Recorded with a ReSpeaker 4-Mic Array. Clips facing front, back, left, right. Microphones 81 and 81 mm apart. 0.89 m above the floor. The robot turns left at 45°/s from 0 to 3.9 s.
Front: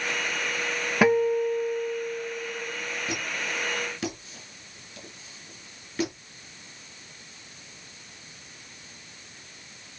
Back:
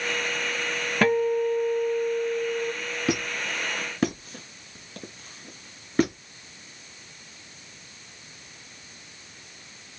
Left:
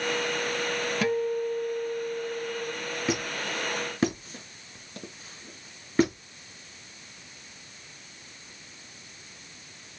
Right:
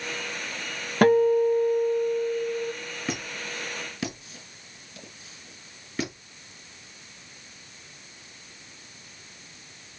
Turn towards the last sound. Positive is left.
turn(degrees=140)